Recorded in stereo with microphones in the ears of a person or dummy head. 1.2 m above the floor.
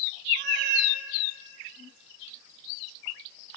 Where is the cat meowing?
55° right (ahead or behind), 2 m.